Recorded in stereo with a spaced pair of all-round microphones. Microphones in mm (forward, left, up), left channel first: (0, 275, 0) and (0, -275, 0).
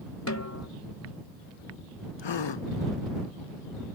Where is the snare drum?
30° left (ahead or behind).